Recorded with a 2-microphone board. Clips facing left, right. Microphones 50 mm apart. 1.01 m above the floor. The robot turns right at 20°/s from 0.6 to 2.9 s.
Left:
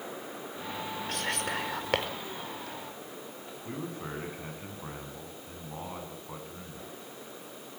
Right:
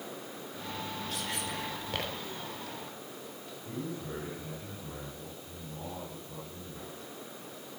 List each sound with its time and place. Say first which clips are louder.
1.1 s whispering: left 7 dB; 65° left (ahead or behind), 4.5 m; by 2.1 s 80° left, 4.5 m
3.6 s a man speaking: left 1 dB; 60° left (ahead or behind), 8.5 m